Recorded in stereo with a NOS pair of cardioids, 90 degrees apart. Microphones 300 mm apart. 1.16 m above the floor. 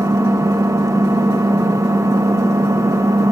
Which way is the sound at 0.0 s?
10° right.